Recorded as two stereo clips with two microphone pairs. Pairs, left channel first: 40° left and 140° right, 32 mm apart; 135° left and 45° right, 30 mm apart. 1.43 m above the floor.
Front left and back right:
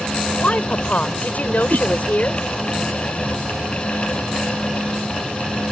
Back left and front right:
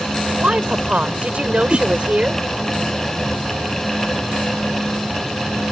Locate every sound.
0.3 s a woman speaking: straight ahead; by 2.4 s 5° left
1.7 s a whoosh: 120° right